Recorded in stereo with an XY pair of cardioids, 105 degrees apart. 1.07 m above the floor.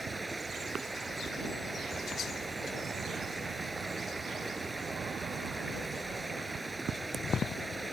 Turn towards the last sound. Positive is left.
turn(degrees=-10)